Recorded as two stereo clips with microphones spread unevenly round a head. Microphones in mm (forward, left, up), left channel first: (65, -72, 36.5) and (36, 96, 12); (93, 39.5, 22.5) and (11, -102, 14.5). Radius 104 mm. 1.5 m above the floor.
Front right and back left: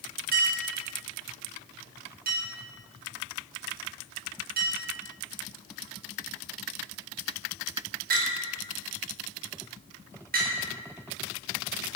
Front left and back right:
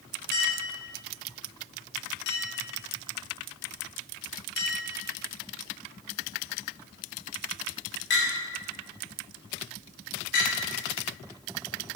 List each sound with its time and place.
0.3 s a clink: 65° left, 3 m